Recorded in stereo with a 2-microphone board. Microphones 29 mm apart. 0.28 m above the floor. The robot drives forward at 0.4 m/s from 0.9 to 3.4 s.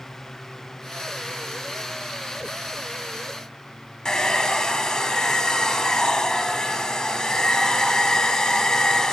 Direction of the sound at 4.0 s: 25° left (ahead or behind).